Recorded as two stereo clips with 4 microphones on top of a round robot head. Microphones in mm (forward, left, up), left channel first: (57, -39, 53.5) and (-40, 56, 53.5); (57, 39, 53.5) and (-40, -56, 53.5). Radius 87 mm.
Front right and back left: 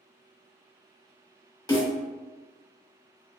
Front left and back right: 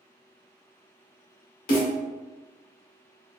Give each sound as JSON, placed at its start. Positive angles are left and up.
{"t": 1.7, "sound": "a snare drum", "azimuth_deg": 15, "distance_m": 1.3}